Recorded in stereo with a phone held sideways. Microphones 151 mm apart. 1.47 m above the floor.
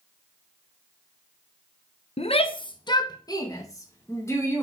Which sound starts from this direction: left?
A shout, at 2.2 s.